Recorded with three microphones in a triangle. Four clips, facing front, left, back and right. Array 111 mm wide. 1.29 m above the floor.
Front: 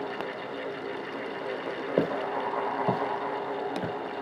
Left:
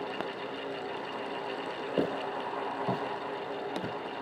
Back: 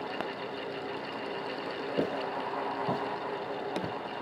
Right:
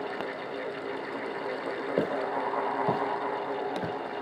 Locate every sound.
2.0 s footsteps: 15° right, 2.5 m; by 4.2 s 55° right, 2.5 m